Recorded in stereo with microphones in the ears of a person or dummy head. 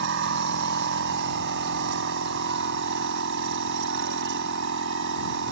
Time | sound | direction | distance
0.0 | a machine running | 70° right (ahead or behind) | ?